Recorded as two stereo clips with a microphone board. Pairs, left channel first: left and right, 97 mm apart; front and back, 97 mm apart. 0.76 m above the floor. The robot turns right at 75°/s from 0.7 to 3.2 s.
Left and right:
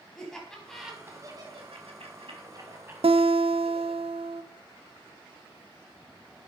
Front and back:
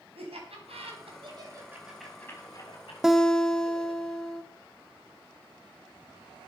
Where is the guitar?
95° right, 0.8 m; by 4.4 s 80° right, 0.8 m.